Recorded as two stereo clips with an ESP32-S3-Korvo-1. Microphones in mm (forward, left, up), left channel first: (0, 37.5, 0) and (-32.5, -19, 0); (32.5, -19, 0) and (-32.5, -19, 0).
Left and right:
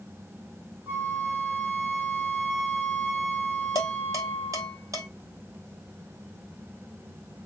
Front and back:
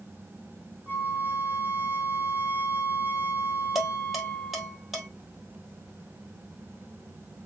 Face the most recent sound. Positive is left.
turn(degrees=-95)